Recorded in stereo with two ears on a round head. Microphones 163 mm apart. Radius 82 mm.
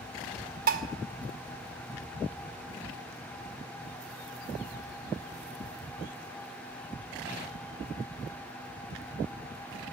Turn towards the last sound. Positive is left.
turn(degrees=-50)  # may be behind; listen again after turning